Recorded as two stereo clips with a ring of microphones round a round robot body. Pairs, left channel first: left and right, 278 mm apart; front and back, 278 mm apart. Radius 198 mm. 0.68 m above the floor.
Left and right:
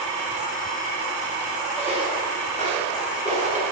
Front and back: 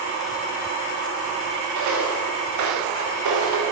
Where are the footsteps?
170° left, 9 m.